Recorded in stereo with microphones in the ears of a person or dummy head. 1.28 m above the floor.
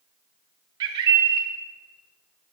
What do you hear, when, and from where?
0.8 s a bird: 25° right (ahead or behind), 1.0 m